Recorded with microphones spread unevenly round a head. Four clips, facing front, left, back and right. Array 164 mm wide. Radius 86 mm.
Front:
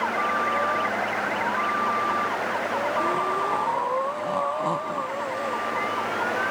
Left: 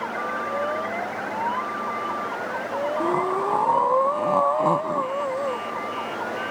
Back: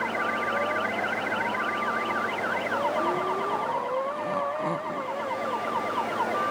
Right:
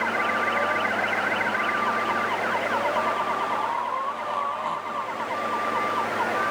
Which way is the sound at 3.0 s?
95° left.